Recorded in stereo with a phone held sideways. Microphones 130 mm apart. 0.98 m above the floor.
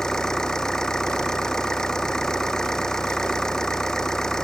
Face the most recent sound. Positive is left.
turn(degrees=5)  # may be behind; listen again after turning